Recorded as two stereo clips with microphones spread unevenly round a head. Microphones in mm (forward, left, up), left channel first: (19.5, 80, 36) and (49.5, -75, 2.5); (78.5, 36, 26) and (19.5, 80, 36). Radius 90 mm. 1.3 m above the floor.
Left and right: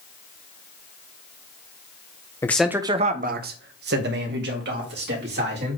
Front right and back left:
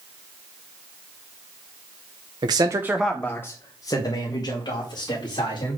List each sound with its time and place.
2.4 s a man speaking: straight behind, 0.8 m; by 5.8 s 75° right, 3.5 m